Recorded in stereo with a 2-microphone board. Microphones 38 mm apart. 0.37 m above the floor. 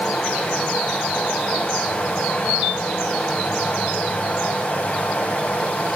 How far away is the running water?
About 1.8 m.